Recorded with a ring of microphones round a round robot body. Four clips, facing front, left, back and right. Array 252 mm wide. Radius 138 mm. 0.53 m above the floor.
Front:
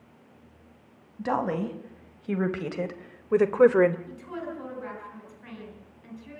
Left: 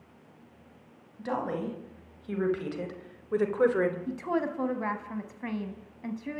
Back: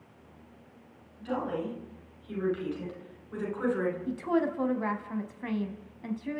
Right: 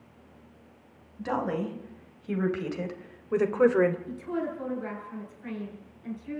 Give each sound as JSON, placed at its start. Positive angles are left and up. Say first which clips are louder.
{"t": 1.2, "sound": "a woman speaking", "louder": "right 2 dB, front 5 dB", "azimuth_deg": -5, "distance_m": 4.5}
{"t": 4.1, "sound": "a woman speaking", "louder": "left 2 dB, back 8 dB", "azimuth_deg": 130, "distance_m": 4.0}